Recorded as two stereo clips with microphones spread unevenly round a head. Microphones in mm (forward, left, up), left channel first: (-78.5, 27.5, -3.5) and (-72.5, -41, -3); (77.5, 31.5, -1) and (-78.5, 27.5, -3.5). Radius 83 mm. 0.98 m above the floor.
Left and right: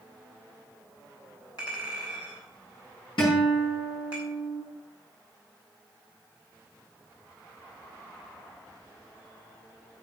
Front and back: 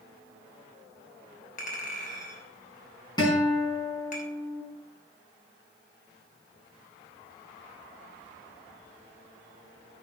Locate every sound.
1.6 s a clink: 40° left, 3 m
3.2 s a guitar: 65° left, 5.5 m